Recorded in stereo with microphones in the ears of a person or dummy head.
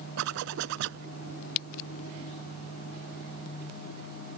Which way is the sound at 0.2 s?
70° right (ahead or behind).